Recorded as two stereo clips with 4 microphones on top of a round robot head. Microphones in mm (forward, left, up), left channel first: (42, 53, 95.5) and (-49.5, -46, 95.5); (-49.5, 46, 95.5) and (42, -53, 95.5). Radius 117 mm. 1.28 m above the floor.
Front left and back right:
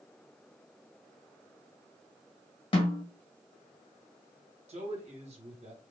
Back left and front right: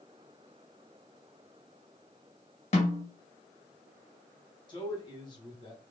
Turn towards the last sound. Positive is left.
turn(degrees=-170)